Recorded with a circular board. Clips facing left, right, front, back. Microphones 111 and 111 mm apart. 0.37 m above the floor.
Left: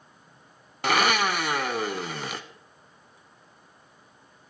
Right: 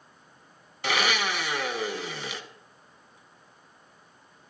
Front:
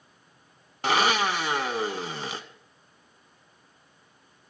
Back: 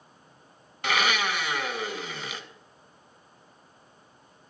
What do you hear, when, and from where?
0.8 s a blender: 55° left, 0.7 m